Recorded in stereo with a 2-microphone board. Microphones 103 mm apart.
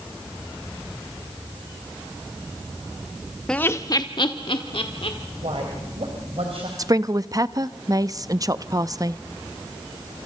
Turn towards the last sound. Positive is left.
turn(degrees=-35)  # may be behind; listen again after turning